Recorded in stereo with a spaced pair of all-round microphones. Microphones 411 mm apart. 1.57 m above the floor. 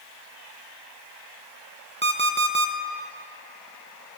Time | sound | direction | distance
2.0 | an alarm clock | 25° right (ahead or behind) | 0.8 m